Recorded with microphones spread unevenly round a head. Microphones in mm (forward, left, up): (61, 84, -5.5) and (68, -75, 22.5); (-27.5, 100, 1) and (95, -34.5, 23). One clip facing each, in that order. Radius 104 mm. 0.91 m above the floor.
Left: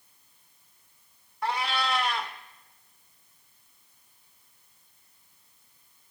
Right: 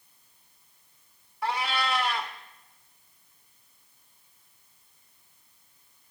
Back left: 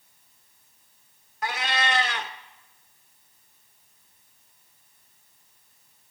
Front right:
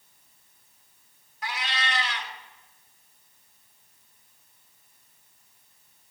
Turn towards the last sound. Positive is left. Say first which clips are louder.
# even, back left 6 dB
turn(degrees=-170)